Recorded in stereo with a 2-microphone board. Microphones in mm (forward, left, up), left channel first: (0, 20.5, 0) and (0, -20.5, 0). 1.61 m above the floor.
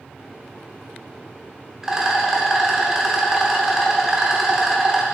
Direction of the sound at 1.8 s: 10° right (ahead or behind).